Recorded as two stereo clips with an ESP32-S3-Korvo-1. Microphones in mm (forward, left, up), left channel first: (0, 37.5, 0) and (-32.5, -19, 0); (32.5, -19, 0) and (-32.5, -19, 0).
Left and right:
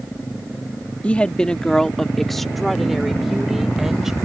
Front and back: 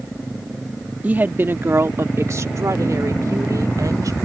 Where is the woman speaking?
120° left; by 4.2 s 155° left.